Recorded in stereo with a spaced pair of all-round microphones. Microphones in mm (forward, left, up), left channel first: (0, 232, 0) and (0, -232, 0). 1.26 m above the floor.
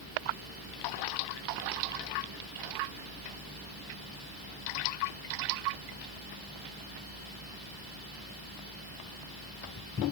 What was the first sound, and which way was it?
Only background noise.